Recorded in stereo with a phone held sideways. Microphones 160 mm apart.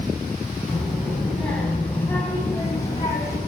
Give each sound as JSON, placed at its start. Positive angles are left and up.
{"t": 0.7, "sound": "a child speaking", "side_deg": 0, "distance_m": 6.0}